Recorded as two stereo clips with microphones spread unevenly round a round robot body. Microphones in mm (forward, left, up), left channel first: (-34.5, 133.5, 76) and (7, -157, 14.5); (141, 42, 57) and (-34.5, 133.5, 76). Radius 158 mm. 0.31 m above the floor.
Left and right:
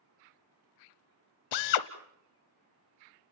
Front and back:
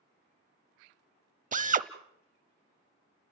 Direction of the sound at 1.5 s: 100° left.